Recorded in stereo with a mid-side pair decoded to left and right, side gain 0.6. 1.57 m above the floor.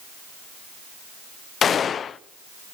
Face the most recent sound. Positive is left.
turn(degrees=40)